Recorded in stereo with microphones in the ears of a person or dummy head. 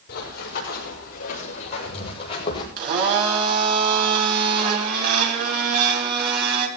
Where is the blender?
50° right (ahead or behind), 2.5 m.